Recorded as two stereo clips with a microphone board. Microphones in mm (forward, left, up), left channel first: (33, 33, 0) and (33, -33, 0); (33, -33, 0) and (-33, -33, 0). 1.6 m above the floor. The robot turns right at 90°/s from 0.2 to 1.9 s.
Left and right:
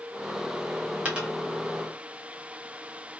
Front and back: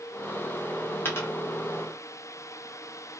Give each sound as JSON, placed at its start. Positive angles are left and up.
{"t": 1.1, "sound": "a dropped coin", "azimuth_deg": -35, "distance_m": 1.2}